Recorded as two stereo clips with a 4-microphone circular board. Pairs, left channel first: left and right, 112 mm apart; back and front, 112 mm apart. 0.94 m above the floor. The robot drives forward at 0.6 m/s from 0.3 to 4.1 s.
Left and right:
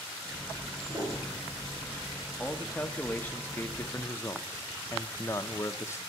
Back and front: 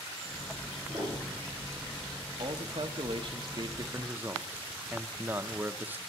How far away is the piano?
About 5 m.